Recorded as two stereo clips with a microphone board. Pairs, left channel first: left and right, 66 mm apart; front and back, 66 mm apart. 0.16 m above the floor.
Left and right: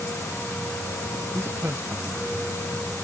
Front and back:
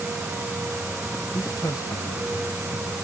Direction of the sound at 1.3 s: 30° right.